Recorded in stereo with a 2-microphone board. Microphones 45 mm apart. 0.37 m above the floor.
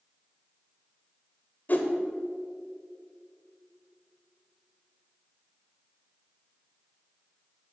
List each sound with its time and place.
1.7 s a whoosh: 45° left (ahead or behind), 0.9 m